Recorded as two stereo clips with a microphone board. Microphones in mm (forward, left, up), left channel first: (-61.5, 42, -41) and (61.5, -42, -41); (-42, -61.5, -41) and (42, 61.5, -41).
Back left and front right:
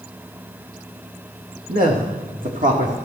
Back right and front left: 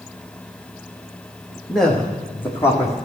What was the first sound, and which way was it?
A man speaking, 35° right.